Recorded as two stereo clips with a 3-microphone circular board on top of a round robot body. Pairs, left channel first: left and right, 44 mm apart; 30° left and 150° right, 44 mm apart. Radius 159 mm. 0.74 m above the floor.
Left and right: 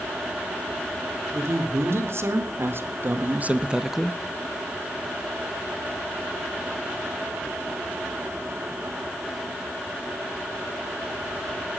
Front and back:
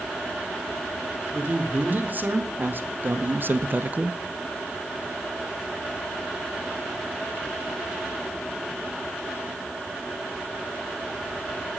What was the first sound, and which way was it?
A man speaking, 100° right.